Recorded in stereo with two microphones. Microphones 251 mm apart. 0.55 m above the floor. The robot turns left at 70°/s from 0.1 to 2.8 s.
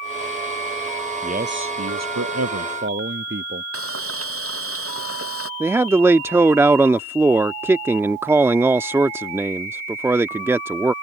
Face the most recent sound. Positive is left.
turn(degrees=-10)  # may be behind; listen again after turning